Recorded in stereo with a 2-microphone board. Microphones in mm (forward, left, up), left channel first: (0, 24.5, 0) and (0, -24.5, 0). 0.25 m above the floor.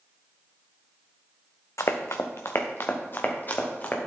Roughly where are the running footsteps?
Left.